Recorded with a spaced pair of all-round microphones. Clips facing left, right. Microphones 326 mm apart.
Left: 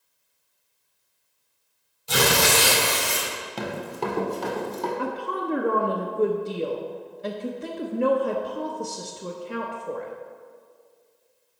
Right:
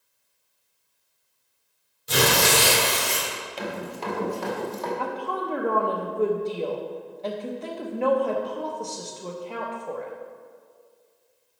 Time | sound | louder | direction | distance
2.1 | tearing paper | even | 20° right (ahead or behind) | 3 m
3.6 | running footsteps | left 3 dB | 55° left (ahead or behind) | 1.6 m
5.0 | a woman speaking | left 1 dB | 20° left (ahead or behind) | 0.6 m